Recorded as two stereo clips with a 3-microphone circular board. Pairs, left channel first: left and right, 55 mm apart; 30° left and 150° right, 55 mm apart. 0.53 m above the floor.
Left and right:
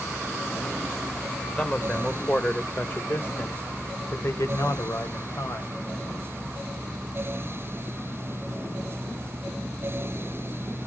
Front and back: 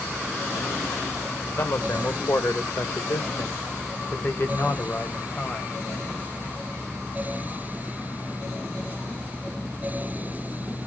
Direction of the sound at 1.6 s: 20° left.